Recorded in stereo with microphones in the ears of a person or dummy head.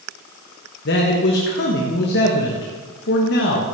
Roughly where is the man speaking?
Left.